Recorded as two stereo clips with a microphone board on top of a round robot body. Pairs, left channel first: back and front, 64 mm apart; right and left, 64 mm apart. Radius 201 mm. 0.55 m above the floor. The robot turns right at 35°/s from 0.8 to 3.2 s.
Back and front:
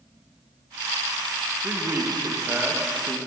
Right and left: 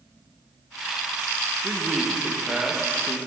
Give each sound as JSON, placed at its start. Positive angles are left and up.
{"t": 1.6, "sound": "a man speaking", "azimuth_deg": 5, "distance_m": 1.4}